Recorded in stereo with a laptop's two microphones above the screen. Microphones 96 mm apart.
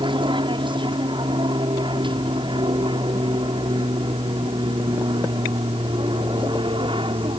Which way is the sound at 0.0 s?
55° right (ahead or behind).